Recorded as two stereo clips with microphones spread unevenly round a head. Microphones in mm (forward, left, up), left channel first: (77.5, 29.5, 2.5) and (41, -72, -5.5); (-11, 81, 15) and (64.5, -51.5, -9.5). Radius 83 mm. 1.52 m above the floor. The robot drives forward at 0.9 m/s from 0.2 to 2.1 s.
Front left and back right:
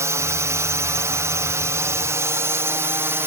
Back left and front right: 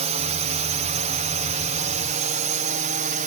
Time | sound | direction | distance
0.0 | a drone | 60° right | ?